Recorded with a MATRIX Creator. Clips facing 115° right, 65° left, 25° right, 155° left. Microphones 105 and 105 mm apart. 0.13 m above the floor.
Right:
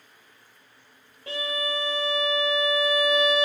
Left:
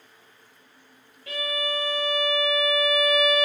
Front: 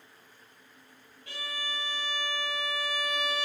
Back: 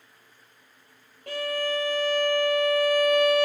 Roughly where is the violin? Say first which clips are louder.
Even, back 12 dB; behind.